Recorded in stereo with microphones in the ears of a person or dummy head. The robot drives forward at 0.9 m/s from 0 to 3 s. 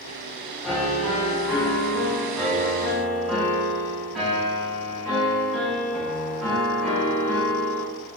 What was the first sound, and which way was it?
A piano, centre (ahead or behind).